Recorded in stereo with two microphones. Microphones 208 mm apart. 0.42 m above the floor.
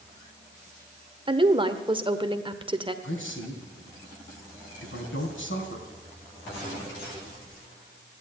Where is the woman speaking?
25° right (ahead or behind), 1.1 m.